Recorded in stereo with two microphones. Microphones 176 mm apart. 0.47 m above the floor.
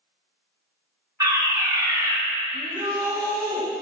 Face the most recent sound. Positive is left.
turn(degrees=-30)  # may be behind; listen again after turning